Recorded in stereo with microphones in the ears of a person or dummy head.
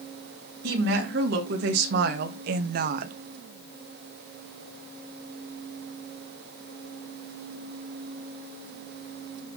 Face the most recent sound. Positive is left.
turn(degrees=-45)  # may be behind; listen again after turning